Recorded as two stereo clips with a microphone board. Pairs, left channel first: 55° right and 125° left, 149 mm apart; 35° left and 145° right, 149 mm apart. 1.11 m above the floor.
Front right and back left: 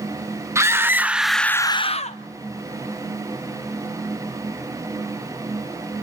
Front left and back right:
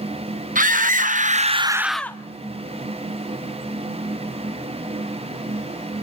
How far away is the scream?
About 1.3 m.